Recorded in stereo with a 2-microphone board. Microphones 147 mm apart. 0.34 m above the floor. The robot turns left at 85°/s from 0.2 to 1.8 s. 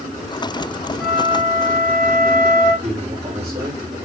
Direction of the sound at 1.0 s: Straight ahead.